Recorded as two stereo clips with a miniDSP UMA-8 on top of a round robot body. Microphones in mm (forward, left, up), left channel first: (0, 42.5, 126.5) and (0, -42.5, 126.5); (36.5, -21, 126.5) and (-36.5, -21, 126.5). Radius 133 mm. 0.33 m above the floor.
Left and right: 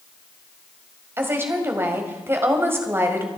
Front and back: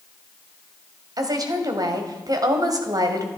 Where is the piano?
No piano in this recording.